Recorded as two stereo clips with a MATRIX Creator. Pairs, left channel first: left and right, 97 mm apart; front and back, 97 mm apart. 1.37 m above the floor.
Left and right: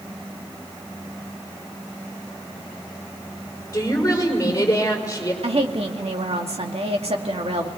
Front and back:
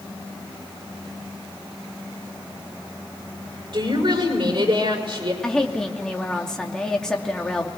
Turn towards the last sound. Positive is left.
turn(degrees=-80)